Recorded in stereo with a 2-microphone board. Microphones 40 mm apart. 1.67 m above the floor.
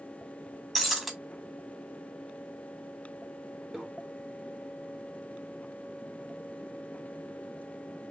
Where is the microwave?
Centre (ahead or behind), 0.9 m.